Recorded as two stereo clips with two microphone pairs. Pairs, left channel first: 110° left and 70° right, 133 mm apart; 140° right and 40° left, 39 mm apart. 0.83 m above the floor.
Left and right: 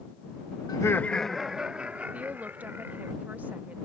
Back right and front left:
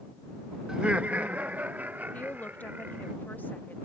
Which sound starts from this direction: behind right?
A woman speaking, at 2.1 s.